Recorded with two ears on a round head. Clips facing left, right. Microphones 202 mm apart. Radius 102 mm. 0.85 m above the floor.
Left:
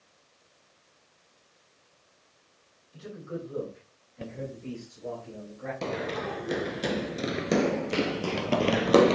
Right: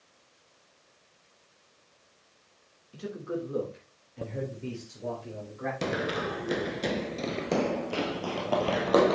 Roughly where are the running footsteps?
Centre.